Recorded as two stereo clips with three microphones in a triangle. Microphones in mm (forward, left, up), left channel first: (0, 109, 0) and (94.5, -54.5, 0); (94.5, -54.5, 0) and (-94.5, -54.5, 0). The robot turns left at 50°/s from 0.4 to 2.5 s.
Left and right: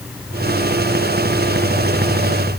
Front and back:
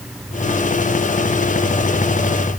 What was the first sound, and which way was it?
Only background noise.